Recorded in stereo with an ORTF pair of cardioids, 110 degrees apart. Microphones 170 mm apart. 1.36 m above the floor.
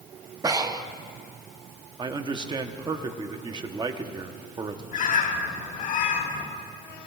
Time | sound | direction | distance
0.4 | breathing | 20° right | 0.7 m
2.0 | a man speaking | 25° right | 1.0 m
4.9 | a bird | 55° left | 3.5 m